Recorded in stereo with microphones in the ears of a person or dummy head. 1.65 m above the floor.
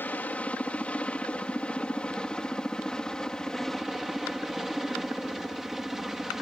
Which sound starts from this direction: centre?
A helicopter, at 0.0 s.